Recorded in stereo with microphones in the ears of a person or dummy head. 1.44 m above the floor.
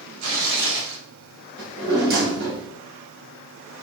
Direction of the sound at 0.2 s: 75° right (ahead or behind).